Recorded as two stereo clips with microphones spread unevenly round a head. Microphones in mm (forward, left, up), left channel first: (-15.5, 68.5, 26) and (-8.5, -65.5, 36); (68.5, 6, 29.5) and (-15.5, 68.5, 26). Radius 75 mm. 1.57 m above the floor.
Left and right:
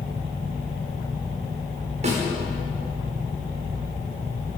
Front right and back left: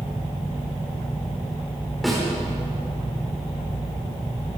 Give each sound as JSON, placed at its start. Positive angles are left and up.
{"t": 2.0, "sound": "a snare drum", "azimuth_deg": -125, "distance_m": 5.5}